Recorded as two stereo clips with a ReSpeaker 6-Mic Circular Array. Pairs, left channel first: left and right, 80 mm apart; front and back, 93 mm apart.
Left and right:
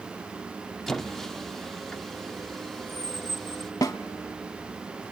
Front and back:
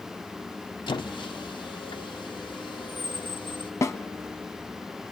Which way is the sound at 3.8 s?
55° left.